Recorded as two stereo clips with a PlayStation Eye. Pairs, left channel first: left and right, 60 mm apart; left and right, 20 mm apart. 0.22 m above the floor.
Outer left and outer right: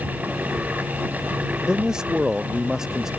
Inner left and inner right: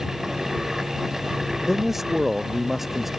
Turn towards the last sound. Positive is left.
turn(degrees=-10)  # may be behind; listen again after turning